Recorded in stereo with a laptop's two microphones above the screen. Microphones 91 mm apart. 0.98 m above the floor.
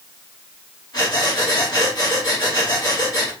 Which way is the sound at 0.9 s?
45° left (ahead or behind).